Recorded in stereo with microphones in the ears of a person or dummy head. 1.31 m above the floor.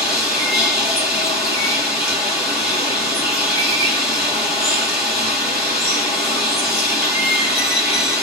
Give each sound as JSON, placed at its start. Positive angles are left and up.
{"t": 0.0, "sound": "running water", "side_deg": 20, "distance_m": 1.0}